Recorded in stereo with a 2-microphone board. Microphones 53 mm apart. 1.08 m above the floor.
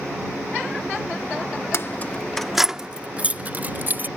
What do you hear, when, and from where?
1.7 s keys jangling: 55° left (ahead or behind); by 4.1 s 40° right (ahead or behind)